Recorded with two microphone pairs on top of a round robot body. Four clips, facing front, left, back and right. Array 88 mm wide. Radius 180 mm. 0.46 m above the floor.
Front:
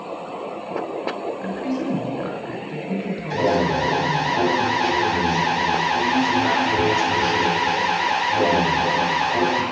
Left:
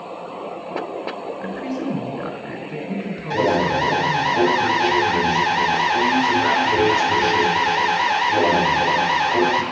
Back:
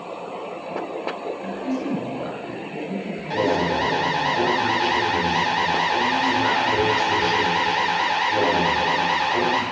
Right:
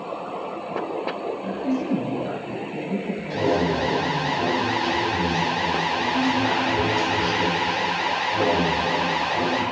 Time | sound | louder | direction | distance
1.4 | a man speaking | right 1 dB, front 1 dB | 85° left | 5.5 m
3.3 | an alarm | left 4 dB, front 1 dB | 115° left | 3.5 m